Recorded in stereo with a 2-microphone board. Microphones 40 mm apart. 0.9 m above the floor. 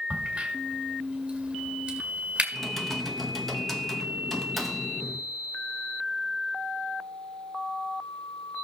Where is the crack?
25° right (ahead or behind), 1.9 m.